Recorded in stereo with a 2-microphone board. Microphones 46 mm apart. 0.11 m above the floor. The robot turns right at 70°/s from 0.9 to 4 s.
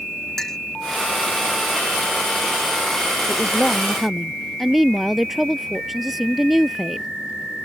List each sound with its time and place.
0.4 s a clink: 10° left (ahead or behind)
3.3 s a woman speaking: 135° left; by 7.1 s 175° right